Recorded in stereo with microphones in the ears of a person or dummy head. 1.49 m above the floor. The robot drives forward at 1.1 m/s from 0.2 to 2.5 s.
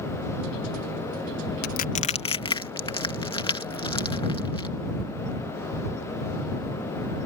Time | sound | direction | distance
1.6 | crushing | 50° left (ahead or behind) | ?